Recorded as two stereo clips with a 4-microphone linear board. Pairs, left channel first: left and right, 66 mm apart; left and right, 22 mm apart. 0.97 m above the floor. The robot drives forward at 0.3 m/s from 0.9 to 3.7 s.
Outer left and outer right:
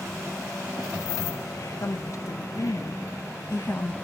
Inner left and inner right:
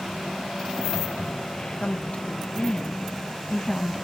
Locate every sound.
1.8 s a woman speaking: 50° left (ahead or behind), 0.6 m; by 3.9 s 35° left (ahead or behind), 0.7 m